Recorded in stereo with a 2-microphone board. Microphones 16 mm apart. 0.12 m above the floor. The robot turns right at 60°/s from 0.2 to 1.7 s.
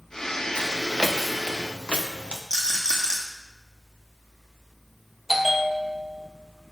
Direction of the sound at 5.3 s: 10° right (ahead or behind).